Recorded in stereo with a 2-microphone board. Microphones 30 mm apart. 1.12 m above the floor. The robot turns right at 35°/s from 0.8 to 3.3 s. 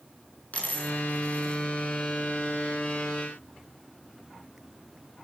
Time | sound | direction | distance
0.5 | a dropped coin | 60° left (ahead or behind) | 6.5 m